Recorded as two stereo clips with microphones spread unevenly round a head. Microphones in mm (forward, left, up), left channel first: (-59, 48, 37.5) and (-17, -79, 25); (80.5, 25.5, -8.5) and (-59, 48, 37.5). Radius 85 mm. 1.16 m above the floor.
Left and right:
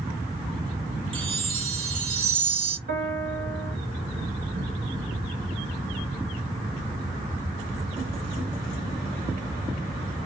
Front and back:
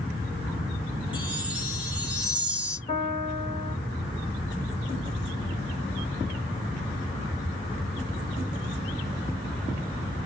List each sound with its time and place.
1.1 s a chime: 120° right, 1.1 m
2.9 s a piano: 80° right, 1.9 m